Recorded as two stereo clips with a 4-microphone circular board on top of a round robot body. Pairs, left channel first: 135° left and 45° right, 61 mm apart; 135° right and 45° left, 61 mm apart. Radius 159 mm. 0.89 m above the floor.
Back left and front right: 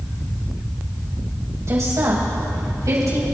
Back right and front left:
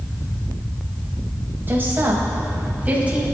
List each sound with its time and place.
1.7 s a woman speaking: 10° right, 6 m; by 3.2 s 20° right, 6 m